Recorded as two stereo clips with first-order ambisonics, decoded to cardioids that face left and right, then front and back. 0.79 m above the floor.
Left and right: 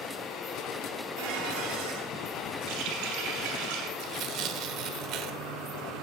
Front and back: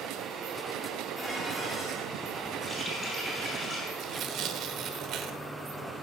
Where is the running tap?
75° right, 6 m.